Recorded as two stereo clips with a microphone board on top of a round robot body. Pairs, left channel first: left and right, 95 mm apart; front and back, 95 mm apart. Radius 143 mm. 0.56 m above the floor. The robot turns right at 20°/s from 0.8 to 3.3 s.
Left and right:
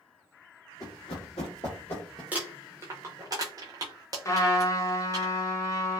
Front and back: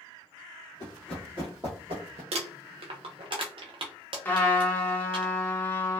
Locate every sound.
0.8 s running footsteps: 40° left, 0.6 m; by 2.2 s 170° left, 0.8 m
2.3 s crumpling: 165° right, 0.5 m; by 5.2 s 145° right, 0.5 m
4.2 s a trumpet: 60° left, 1.1 m